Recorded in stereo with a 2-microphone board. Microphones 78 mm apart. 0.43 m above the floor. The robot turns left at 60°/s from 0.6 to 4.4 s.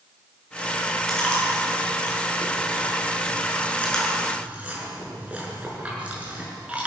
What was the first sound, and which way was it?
Chewing, centre (ahead or behind).